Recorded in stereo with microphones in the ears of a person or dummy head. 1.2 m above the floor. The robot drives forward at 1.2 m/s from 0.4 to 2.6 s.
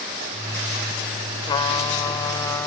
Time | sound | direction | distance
1.4 | a trumpet | 30° left (ahead or behind) | ?